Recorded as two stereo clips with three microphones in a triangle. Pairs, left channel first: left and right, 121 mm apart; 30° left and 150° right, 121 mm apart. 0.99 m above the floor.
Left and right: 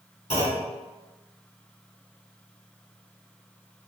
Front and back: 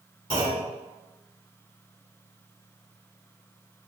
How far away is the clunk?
About 2.0 m.